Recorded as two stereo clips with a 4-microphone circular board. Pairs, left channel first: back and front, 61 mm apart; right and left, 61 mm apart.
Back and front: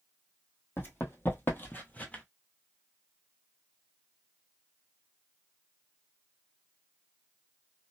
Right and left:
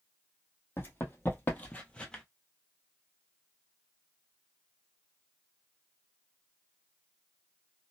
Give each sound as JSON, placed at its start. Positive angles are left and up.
{"t": 0.8, "sound": "running footsteps", "azimuth_deg": -135, "distance_m": 1.4}